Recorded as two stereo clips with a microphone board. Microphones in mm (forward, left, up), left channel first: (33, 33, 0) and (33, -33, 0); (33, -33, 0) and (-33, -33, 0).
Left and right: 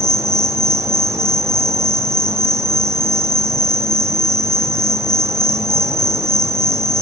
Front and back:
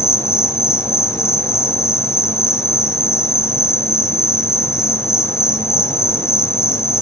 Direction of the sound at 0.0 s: 45° right.